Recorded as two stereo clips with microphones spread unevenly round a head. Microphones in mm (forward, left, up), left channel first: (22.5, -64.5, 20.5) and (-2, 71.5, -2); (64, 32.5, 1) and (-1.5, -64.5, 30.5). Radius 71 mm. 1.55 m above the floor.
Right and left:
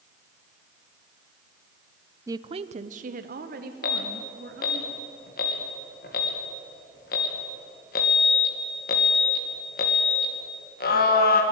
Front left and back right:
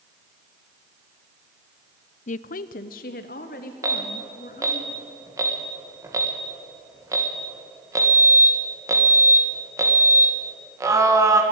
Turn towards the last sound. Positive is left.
turn(degrees=-60)